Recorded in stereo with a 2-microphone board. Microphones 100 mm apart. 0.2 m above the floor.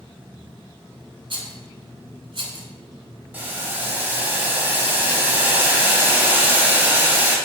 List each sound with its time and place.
1.3 s a rattle: 60° right (ahead or behind), 0.7 m
3.3 s boiling: 15° right (ahead or behind), 0.9 m